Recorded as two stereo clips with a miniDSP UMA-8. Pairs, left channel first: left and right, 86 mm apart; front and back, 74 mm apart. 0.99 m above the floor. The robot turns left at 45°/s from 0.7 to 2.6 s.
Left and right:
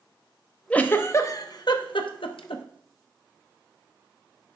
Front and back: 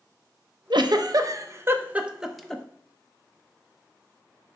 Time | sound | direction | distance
0.7 | a giggle | 165° left | 0.8 m